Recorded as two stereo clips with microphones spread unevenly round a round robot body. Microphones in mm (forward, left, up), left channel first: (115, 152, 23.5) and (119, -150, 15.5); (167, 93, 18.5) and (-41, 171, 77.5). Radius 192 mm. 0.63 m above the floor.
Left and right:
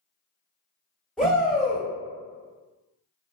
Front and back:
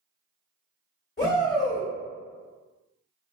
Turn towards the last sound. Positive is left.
turn(degrees=5)